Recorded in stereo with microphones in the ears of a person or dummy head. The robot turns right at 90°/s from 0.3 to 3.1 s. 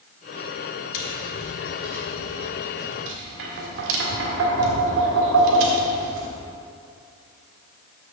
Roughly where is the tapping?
Left.